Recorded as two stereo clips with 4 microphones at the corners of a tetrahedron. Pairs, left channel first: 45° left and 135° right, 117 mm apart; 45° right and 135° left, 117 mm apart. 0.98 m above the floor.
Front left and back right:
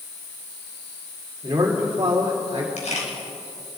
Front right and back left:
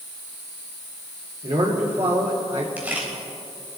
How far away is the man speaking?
About 2.5 m.